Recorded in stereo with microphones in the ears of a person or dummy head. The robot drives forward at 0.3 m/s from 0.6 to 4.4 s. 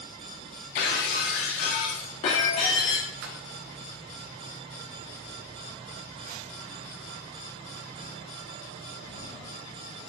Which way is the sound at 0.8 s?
45° left (ahead or behind).